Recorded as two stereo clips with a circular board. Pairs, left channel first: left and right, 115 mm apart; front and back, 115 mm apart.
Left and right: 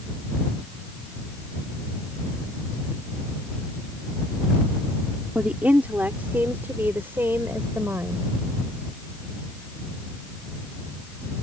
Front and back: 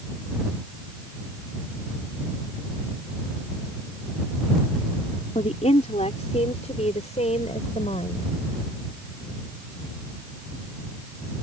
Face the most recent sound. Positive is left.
turn(degrees=-20)